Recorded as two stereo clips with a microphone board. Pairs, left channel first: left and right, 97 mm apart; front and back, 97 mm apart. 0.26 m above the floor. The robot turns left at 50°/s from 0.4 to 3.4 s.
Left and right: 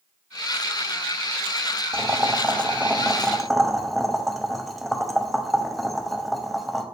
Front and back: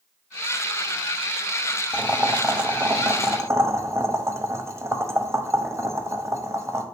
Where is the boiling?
110° right, 0.5 m; by 6.8 s straight behind, 0.5 m.